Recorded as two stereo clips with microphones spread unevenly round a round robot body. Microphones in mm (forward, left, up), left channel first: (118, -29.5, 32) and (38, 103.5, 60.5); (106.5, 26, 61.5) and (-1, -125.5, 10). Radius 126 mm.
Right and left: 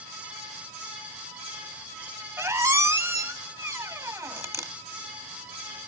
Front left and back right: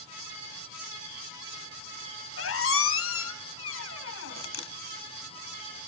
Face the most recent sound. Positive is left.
turn(degrees=45)